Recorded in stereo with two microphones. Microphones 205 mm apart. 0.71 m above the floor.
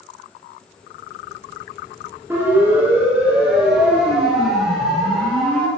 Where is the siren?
10° right (ahead or behind), 9.5 m; by 5.7 s 5° left (ahead or behind), 9 m.